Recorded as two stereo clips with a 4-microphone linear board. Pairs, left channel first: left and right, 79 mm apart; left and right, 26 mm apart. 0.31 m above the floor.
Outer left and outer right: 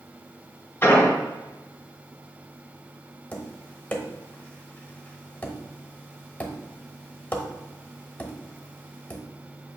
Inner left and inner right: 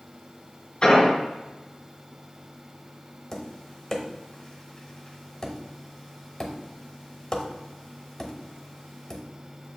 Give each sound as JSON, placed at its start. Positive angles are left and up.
{"t": 0.8, "sound": "an explosion", "side_deg": 25, "distance_m": 1.6}
{"t": 3.3, "sound": "tapping", "side_deg": 20, "distance_m": 0.8}